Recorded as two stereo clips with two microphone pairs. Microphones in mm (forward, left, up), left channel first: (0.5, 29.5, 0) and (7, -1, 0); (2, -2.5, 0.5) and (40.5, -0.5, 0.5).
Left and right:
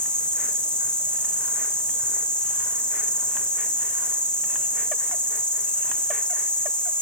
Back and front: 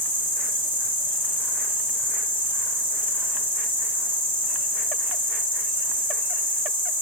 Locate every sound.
0.0 s an insect: 40° left, 2 m